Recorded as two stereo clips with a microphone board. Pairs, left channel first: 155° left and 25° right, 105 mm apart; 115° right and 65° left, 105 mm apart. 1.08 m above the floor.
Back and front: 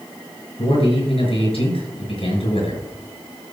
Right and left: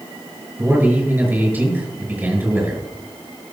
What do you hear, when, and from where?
0.6 s a man speaking: 140° left, 5.5 m